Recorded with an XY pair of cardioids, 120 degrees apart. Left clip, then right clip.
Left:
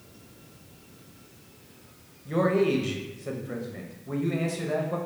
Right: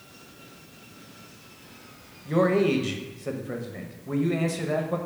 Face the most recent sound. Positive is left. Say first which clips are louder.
# right 2 dB
turn(degrees=-15)